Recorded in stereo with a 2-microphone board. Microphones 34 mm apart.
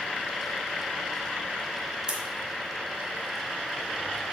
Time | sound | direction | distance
2.1 | scissors | 25° right (ahead or behind) | 0.7 m